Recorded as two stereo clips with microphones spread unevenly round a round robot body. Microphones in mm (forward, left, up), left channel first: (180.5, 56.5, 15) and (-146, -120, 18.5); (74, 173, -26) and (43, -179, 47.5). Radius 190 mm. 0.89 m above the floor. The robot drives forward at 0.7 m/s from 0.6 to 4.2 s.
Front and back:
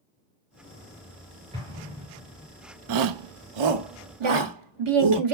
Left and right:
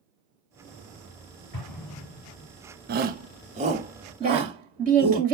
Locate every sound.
1.5 s an explosion: 130° left, 4.5 m; by 2.5 s 135° left, 5 m
2.9 s a shout: 165° right, 0.7 m; by 5.2 s 175° right, 1.5 m
4.2 s a woman speaking: 170° right, 1.7 m